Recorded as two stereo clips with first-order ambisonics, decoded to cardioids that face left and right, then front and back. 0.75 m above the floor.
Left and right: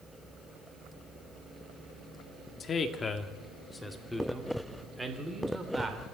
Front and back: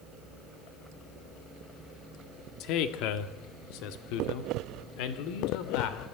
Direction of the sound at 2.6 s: 25° left.